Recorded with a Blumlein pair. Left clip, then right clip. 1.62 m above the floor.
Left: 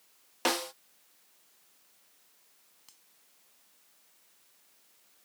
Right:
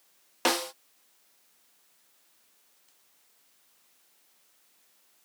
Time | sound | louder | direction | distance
0.5 | a snare drum | right 3 dB | 10° right | ?
2.9 | a finger snap | left 10 dB | 30° left | ?